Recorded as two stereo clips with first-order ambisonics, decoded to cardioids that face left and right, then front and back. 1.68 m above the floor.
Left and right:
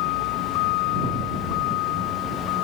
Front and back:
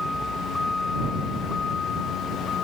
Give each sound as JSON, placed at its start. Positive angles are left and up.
{"t": 0.0, "sound": "a vehicle", "azimuth_deg": 95}